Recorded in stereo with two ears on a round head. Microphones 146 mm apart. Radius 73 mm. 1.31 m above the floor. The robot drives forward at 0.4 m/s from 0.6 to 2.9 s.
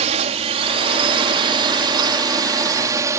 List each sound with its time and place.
0.0 s a drone: 45° right (ahead or behind); by 3.2 s 20° right (ahead or behind)